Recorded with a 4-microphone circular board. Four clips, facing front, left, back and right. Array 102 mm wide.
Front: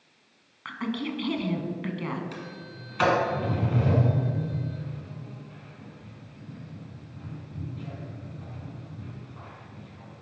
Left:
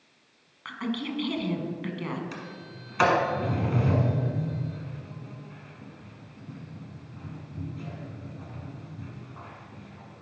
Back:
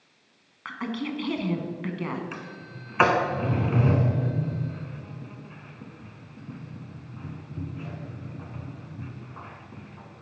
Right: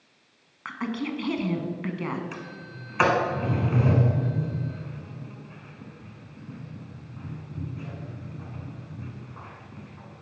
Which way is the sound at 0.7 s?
105° right.